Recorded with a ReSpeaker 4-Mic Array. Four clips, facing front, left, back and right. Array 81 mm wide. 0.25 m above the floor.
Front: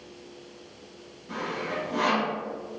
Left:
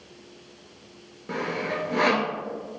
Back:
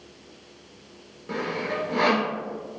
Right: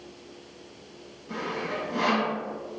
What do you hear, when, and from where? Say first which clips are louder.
1.3 s sawing: left 3 dB, back 3 dB; 120° left, 0.7 m